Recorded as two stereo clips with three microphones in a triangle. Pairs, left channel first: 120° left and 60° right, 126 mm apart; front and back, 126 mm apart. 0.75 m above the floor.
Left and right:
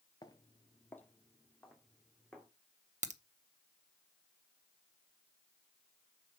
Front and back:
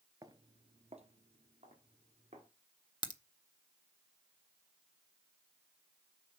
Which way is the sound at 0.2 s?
140° left.